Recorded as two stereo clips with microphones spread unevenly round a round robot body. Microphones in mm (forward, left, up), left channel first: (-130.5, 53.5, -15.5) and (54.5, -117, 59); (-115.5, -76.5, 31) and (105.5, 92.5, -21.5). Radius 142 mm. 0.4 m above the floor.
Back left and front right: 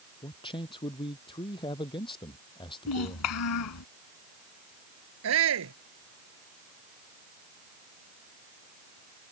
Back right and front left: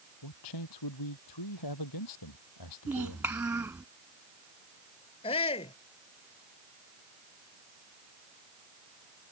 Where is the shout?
70° right.